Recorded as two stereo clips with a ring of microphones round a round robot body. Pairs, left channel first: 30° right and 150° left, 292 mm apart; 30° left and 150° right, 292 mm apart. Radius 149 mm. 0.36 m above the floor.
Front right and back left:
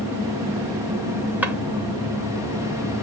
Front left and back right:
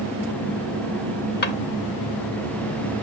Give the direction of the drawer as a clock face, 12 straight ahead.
10 o'clock.